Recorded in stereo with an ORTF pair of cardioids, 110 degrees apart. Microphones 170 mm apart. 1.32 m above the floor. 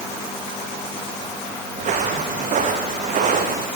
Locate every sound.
1.8 s footsteps: 50° right, 4.5 m